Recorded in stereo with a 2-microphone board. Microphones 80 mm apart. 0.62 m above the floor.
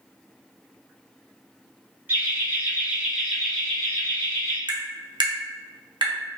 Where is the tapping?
70° right (ahead or behind), 0.9 m.